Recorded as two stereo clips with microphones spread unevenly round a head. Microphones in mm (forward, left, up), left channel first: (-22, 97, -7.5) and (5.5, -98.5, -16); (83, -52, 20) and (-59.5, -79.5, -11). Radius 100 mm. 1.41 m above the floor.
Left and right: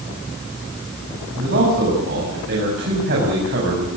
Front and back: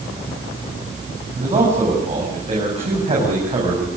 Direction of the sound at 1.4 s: 120° right.